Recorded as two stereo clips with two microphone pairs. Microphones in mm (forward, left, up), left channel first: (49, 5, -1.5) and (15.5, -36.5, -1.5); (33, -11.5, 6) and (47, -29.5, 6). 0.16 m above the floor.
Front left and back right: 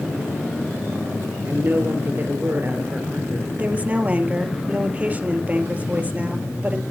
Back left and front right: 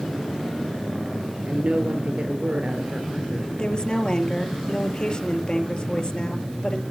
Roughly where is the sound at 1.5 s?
Right.